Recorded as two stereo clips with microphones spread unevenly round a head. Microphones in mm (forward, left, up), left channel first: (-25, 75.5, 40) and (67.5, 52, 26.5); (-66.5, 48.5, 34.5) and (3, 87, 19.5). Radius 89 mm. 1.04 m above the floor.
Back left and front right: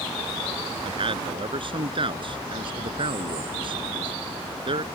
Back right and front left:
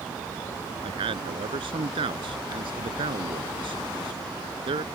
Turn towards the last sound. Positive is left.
turn(degrees=10)